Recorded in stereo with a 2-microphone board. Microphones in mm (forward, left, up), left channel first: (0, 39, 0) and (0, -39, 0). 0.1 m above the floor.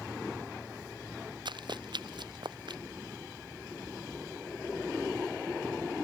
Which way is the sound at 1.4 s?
75° right (ahead or behind).